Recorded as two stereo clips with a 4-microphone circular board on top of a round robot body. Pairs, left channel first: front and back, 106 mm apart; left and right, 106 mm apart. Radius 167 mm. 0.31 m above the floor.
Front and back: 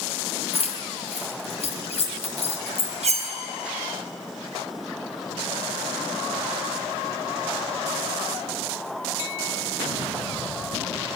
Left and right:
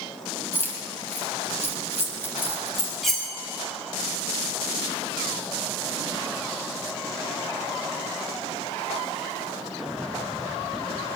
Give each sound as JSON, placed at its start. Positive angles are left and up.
{"t": 0.5, "sound": "keys jangling", "azimuth_deg": 20, "distance_m": 2.0}
{"t": 3.0, "sound": "cutlery clinking", "azimuth_deg": 180, "distance_m": 1.8}